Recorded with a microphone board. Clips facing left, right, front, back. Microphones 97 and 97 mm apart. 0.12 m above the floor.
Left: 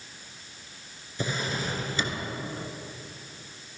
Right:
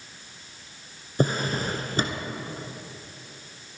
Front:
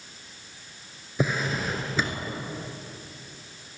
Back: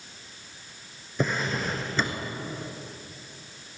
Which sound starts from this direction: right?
A drawer, at 1.2 s.